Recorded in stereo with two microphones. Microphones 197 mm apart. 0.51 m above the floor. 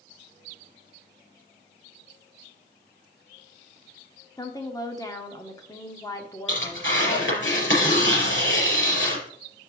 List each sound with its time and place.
4.4 s a woman speaking: 20° left (ahead or behind), 1.2 m
6.5 s tearing paper: 75° left (ahead or behind), 4.5 m